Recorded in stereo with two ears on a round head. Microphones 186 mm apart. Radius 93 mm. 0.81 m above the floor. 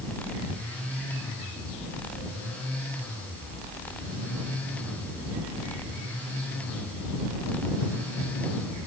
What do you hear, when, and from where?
Only background noise.